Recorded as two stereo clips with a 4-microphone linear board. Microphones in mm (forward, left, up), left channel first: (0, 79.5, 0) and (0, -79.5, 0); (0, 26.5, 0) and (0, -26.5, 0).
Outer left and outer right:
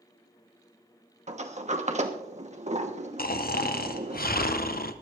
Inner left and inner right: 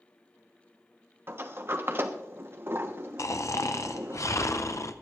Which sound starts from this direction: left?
Snoring, at 3.2 s.